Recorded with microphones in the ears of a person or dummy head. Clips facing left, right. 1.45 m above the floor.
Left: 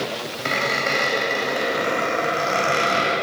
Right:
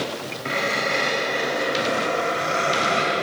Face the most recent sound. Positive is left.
turn(degrees=50)  # may be behind; listen again after turning